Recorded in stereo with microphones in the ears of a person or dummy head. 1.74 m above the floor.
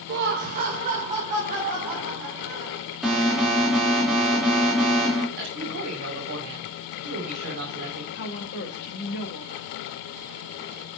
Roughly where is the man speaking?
Right.